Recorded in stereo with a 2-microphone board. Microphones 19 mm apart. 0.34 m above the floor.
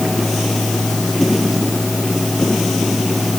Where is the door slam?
No door slam in this recording.